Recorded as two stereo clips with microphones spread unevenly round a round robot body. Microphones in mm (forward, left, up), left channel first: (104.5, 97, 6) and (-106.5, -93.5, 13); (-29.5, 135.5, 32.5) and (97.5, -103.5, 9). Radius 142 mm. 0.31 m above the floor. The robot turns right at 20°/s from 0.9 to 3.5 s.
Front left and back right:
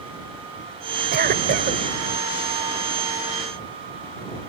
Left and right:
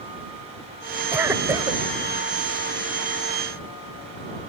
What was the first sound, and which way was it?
A cough, 130° right.